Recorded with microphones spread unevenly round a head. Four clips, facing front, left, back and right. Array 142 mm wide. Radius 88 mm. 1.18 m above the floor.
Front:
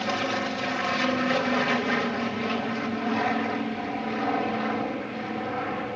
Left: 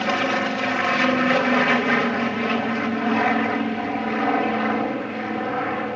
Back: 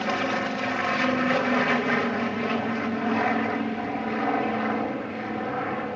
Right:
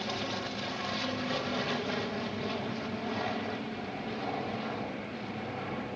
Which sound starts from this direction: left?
An aircraft, at 0.0 s.